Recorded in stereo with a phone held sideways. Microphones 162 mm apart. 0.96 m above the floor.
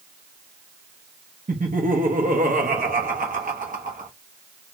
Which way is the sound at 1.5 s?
50° right (ahead or behind).